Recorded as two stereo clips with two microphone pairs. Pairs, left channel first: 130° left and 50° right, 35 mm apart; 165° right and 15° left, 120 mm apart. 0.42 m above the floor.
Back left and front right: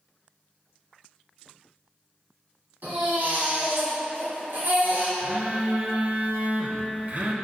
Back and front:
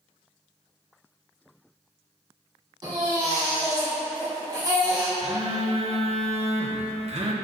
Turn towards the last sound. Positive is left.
turn(degrees=-5)